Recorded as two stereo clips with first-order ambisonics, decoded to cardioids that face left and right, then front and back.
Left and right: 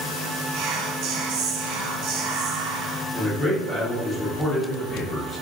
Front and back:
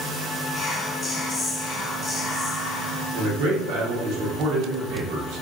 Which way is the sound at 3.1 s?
155° left.